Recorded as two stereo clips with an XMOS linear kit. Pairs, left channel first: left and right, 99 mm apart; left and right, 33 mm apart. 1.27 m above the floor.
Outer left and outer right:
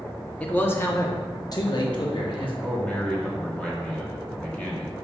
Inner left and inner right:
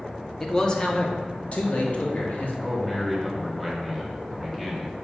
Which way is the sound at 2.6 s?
10° left (ahead or behind).